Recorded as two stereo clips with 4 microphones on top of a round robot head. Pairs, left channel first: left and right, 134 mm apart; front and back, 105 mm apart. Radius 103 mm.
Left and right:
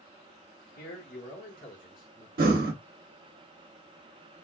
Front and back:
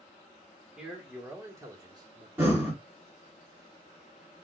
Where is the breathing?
105° right, 0.9 m.